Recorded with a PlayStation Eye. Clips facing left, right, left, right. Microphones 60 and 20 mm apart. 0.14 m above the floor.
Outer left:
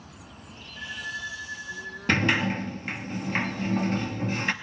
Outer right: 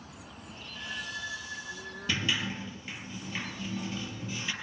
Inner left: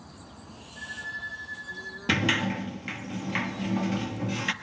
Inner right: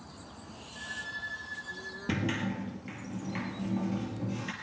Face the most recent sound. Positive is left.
turn(degrees=55)  # may be behind; listen again after turning